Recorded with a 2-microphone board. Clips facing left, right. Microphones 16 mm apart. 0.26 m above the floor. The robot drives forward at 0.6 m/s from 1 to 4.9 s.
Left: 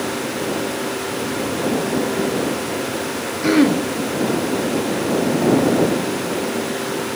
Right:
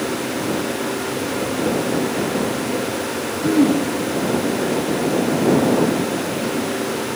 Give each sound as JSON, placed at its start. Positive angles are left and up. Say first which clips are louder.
{"t": 3.4, "sound": "throat clearing", "louder": "left 1 dB", "side_deg": 65, "distance_m": 0.6}